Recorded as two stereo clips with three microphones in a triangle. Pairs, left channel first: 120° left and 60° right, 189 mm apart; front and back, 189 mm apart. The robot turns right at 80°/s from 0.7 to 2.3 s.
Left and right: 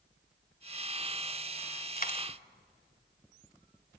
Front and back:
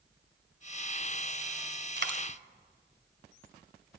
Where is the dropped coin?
155° left, 1.7 m; by 2.2 s straight behind, 1.7 m.